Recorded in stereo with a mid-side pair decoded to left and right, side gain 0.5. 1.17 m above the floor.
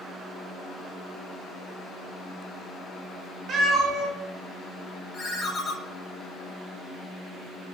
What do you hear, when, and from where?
3.5 s a cat meowing: 55° right, 1.4 m
5.1 s a ringtone: 40° left, 0.8 m